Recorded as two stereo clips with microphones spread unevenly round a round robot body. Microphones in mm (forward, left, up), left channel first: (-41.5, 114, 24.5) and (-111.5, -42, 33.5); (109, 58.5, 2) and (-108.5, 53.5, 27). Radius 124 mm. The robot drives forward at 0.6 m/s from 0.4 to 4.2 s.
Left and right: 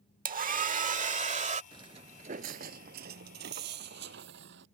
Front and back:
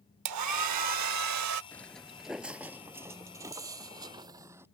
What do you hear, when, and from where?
0.2 s a hair dryer: 155° right; by 1.6 s 165° right
1.7 s footsteps: 85° right; by 4.7 s 100° right